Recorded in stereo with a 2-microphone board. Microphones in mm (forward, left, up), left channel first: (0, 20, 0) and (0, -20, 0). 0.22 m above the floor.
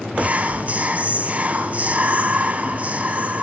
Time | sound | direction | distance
0.1 | whispering | 40° right (ahead or behind) | 1.9 m